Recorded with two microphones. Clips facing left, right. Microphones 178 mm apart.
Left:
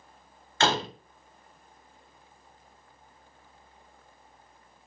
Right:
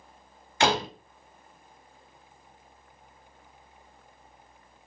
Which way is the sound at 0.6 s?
15° right (ahead or behind).